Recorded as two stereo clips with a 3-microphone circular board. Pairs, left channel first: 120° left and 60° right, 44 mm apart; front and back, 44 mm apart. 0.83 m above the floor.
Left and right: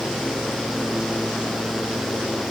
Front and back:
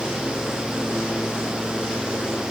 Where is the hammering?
No hammering in this recording.